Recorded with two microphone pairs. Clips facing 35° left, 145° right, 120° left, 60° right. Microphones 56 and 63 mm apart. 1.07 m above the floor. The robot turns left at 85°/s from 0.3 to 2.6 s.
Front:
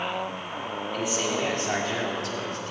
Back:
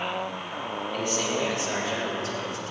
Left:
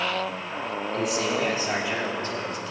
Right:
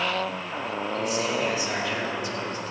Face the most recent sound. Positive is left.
turn(degrees=-15)